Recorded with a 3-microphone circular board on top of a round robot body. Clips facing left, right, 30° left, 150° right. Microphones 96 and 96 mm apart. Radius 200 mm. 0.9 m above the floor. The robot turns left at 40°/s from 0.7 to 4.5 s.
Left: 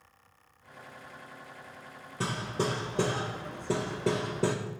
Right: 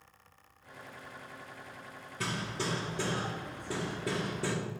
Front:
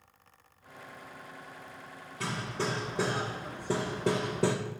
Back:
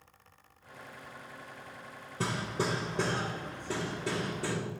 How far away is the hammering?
About 1.7 m.